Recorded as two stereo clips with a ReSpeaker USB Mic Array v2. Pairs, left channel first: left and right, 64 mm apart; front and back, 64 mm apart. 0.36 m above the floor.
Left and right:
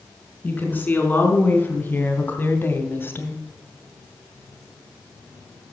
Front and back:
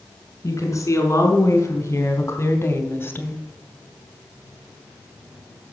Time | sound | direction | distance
0.4 | a woman speaking | 30° left | 4.5 m